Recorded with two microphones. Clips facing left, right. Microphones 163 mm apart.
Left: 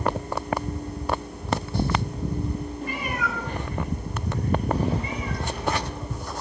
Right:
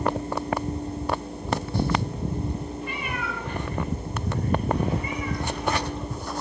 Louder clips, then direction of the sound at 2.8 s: Left 2 dB; 40° left (ahead or behind).